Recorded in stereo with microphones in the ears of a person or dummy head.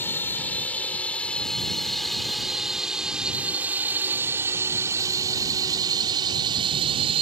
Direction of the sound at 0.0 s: 10° left (ahead or behind).